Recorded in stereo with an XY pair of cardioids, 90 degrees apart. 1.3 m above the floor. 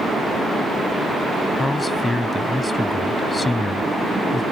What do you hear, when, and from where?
1.6 s a man speaking: 20° left